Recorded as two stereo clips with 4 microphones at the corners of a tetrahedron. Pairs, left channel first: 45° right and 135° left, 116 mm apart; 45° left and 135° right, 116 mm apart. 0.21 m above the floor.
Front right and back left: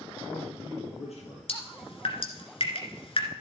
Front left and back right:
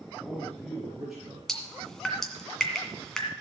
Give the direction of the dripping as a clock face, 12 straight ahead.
1 o'clock.